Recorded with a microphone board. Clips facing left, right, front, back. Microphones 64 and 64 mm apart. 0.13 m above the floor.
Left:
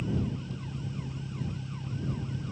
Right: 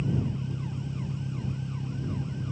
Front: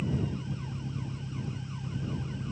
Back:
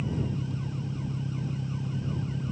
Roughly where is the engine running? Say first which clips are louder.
Right 2 dB, back 1 dB; behind.